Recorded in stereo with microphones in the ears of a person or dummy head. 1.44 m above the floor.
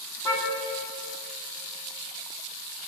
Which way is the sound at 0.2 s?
25° left (ahead or behind).